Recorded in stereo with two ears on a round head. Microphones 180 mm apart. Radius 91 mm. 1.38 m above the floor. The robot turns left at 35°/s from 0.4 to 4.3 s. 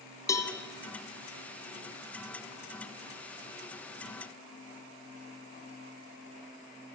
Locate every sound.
0.3 s a cowbell: 15° left (ahead or behind), 1.7 m; by 0.5 s 20° left (ahead or behind), 1.7 m